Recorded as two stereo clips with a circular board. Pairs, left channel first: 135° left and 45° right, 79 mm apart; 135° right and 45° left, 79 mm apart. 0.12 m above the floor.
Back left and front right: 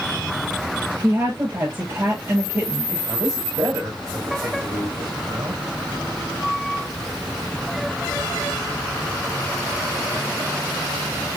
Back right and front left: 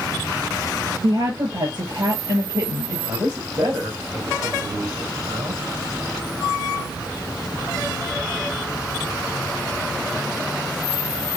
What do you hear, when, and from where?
1.0 s a woman speaking: 15° left, 8 m
3.1 s a man speaking: 5° left, 7 m